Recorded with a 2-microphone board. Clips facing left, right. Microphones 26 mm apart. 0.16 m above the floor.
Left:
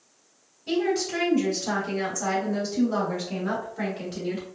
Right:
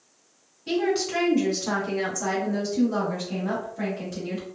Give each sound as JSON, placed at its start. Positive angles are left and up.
{"t": 0.7, "sound": "a woman speaking", "side_deg": -25, "distance_m": 1.4}